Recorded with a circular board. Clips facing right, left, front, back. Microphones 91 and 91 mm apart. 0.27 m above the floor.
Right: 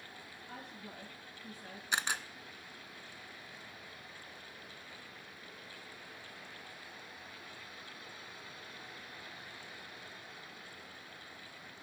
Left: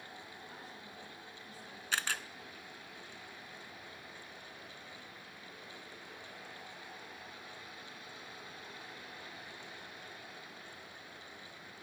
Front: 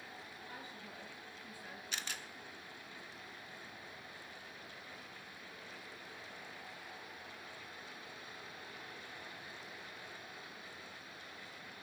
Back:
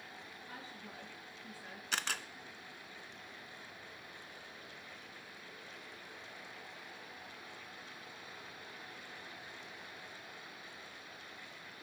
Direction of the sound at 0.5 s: 115° right.